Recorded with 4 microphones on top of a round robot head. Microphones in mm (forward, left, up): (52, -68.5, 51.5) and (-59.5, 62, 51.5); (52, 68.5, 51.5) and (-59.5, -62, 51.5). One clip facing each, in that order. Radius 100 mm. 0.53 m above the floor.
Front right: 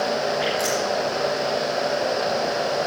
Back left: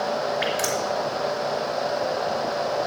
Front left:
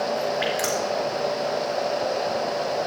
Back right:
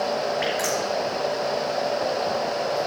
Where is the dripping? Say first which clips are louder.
Front right 2 dB, even; 100° left, 3 m.